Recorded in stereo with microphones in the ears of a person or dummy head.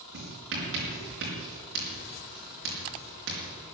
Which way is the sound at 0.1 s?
65° right (ahead or behind).